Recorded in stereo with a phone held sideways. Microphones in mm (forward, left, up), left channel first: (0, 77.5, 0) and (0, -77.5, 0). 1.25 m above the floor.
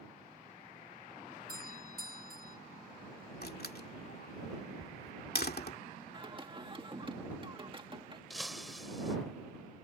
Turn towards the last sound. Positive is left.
turn(degrees=0)  # may be behind; listen again after turning